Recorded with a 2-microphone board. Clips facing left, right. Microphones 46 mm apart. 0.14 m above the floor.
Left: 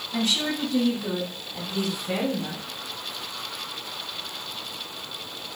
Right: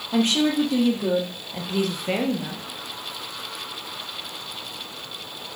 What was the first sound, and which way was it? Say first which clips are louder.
A woman speaking: right 6 dB; 70° right (ahead or behind).